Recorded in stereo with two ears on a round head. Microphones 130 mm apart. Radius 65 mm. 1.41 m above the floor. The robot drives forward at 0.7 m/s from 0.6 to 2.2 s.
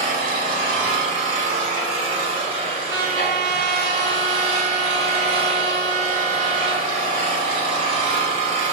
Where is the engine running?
55° right (ahead or behind), 2.5 m; by 8.7 s 45° right (ahead or behind), 3 m.